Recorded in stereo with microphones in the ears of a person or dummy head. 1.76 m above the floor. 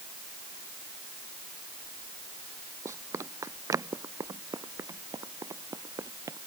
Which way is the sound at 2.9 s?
20° right (ahead or behind).